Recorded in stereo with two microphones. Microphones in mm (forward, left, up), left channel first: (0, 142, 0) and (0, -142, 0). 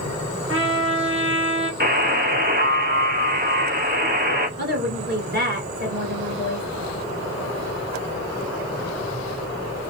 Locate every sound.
0.5 s a trumpet: 45° right (ahead or behind), 1.1 m
1.8 s a buzzer: 35° right (ahead or behind), 0.7 m
4.6 s a woman speaking: 35° right (ahead or behind), 2 m